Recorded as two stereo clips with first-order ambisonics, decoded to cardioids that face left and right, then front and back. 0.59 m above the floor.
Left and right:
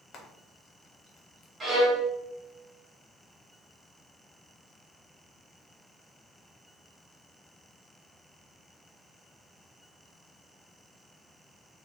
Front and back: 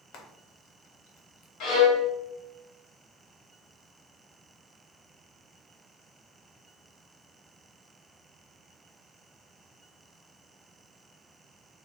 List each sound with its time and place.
0.1 s frying: 35° left, 0.7 m
1.6 s a violin: 20° right, 1.0 m